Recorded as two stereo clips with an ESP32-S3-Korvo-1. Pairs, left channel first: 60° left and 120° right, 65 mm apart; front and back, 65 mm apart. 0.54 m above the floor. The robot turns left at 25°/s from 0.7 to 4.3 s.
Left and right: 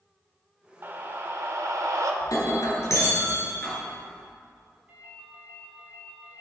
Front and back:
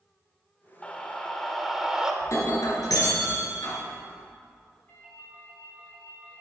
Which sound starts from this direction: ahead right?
A ringtone, at 4.9 s.